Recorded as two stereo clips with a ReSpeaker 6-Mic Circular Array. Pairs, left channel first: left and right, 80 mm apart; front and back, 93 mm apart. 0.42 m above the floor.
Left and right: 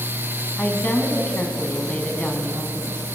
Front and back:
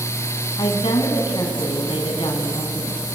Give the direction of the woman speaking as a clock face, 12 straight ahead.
11 o'clock.